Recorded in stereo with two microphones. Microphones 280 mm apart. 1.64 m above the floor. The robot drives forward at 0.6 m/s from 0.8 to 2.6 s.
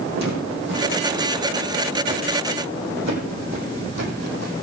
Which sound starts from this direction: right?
Footsteps, at 0.1 s.